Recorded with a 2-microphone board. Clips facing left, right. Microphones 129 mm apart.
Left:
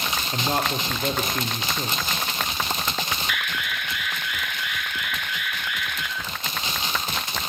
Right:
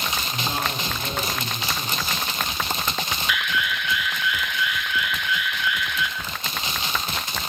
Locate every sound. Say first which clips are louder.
0.3 s a man speaking: left 5 dB; 55° left (ahead or behind), 5.5 m
3.3 s an alarm: right 4 dB; 55° left (ahead or behind), 3.5 m